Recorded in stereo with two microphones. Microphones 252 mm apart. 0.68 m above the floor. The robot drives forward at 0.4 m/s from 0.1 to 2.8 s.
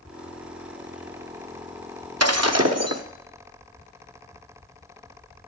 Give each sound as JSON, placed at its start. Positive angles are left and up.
{"t": 2.2, "sound": "breaking glass", "side_deg": -75, "distance_m": 0.8}